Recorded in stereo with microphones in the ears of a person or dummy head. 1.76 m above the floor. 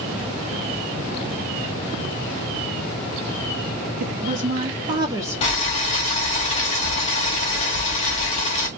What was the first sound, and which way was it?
A woman speaking, 60° right (ahead or behind).